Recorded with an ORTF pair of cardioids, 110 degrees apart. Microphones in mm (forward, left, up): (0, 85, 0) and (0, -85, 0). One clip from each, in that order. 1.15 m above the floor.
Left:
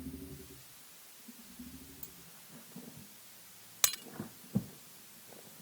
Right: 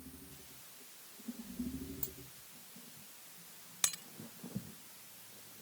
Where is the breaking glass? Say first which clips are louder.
Left 4 dB; 35° left.